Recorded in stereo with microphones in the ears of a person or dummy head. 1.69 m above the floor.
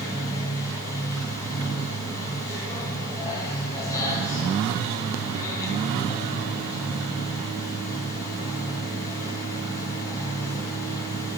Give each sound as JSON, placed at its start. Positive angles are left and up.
{"t": 0.0, "sound": "a machine running", "side_deg": 20, "distance_m": 3.0}